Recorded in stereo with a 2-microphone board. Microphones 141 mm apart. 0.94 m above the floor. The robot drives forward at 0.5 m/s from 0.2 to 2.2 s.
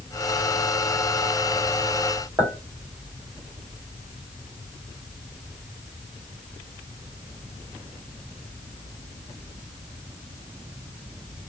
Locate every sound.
2.4 s a clink: 15° right (ahead or behind), 1.7 m